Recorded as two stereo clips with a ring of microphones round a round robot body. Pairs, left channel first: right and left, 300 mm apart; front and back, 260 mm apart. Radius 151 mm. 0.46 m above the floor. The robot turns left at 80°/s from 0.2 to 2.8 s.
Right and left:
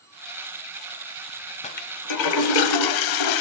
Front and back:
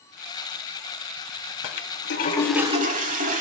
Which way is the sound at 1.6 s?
20° right.